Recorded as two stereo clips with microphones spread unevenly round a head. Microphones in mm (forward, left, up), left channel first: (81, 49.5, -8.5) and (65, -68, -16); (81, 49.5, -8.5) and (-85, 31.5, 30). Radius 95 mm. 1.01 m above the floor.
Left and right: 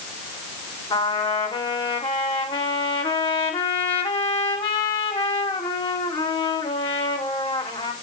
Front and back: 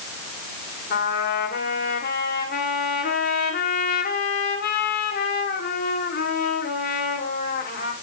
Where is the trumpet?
35° left, 3.5 m.